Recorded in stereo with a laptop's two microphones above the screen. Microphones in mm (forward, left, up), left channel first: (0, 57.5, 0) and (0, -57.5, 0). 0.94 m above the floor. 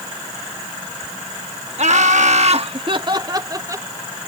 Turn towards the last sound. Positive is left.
turn(degrees=-25)  # may be behind; listen again after turning